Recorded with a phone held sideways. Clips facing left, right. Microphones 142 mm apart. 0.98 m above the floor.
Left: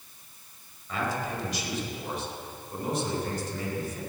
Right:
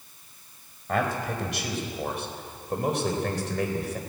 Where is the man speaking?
60° right (ahead or behind), 4.5 m; by 4.0 s 85° right, 4 m.